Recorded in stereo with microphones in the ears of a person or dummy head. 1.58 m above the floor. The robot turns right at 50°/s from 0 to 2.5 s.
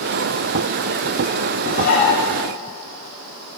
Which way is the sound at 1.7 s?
55° left (ahead or behind).